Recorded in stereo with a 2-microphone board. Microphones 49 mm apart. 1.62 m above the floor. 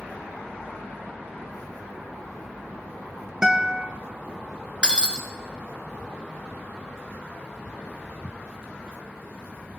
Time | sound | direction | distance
3.4 | a guitar | 15° right (ahead or behind) | 0.7 m
4.8 | breaking glass | 20° right (ahead or behind) | 1.8 m